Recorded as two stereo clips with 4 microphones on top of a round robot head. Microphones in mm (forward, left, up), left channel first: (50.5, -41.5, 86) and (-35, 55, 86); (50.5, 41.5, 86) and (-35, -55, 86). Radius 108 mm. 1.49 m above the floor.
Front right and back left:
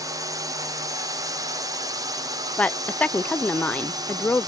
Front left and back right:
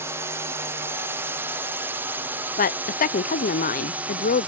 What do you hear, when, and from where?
0.0 s a drone: 170° left; by 4.5 s 160° left
2.6 s a woman speaking: 30° left